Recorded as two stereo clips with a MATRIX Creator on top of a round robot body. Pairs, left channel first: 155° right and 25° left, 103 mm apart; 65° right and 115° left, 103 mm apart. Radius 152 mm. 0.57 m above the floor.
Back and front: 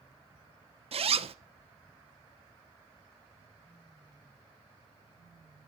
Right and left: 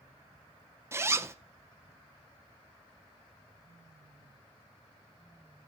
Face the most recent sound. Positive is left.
turn(degrees=45)